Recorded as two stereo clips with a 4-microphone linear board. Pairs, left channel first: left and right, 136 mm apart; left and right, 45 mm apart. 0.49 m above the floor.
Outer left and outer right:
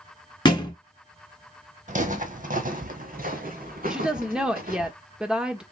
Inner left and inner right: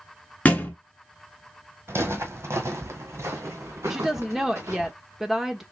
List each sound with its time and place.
0.5 s a thud: 30° left (ahead or behind), 1.2 m
1.9 s footsteps: 60° right (ahead or behind), 1.1 m; by 4.9 s 80° right, 2.5 m
3.9 s a woman speaking: 5° right (ahead or behind), 1.0 m